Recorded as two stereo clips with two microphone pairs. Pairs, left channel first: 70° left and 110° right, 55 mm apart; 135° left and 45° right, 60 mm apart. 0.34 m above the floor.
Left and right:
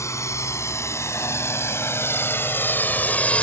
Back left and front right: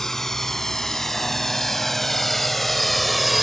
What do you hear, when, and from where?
0.0 s a drone: 55° left; by 3.4 s 50° left